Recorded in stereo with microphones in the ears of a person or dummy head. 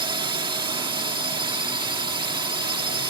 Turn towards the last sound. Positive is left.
turn(degrees=-15)  # may be behind; listen again after turning